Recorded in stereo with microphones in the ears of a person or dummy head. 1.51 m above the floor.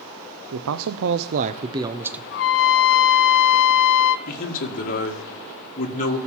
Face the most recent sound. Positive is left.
turn(degrees=50)  # may be behind; listen again after turning